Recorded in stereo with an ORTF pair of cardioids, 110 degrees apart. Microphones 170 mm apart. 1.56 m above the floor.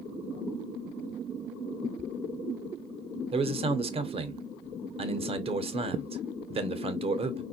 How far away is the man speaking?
About 0.7 m.